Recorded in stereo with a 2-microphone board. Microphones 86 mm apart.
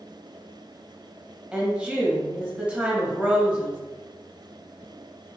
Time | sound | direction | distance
1.5 | a woman speaking | 10° right (ahead or behind) | 0.6 m